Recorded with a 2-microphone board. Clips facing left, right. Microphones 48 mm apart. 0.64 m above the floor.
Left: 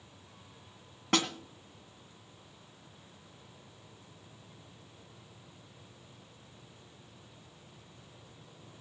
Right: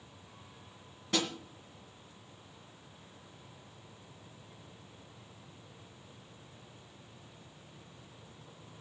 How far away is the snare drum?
About 2 m.